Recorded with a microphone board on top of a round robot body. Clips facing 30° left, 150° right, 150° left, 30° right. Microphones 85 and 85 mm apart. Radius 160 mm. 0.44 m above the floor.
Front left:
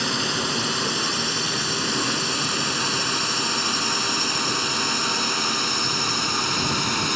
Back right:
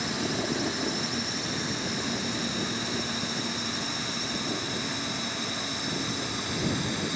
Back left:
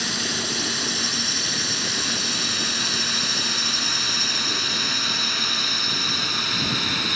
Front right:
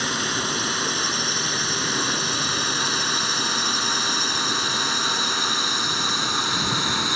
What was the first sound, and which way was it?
A drone, 20° left.